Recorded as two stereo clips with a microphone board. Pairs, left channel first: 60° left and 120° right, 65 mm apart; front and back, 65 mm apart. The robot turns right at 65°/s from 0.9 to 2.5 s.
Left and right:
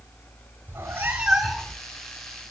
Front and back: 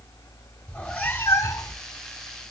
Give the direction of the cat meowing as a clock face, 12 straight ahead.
2 o'clock.